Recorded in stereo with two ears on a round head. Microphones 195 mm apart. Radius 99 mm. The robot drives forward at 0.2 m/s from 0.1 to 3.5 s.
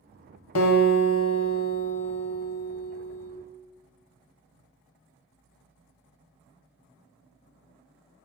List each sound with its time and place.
0.6 s a guitar: 70° left (ahead or behind), 0.7 m; by 3.3 s 45° left (ahead or behind), 0.9 m